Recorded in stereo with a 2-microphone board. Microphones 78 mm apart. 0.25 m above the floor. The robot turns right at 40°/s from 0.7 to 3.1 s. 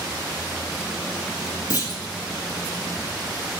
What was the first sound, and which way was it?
A clunk, 45° left (ahead or behind).